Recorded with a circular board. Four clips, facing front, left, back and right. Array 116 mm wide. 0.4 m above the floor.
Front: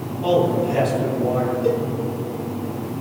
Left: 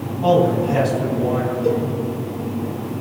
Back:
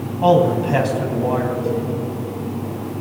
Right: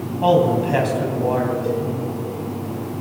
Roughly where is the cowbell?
Ahead.